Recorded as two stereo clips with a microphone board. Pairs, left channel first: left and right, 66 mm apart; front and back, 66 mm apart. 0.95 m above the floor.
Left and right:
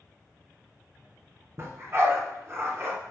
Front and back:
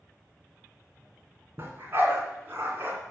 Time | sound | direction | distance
1.6 | a dog barking | 130° right | 2.5 m